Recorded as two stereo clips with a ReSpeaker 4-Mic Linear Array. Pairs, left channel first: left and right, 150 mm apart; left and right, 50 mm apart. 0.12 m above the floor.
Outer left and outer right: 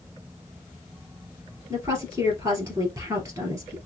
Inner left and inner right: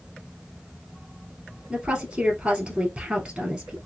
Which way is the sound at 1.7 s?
20° right (ahead or behind).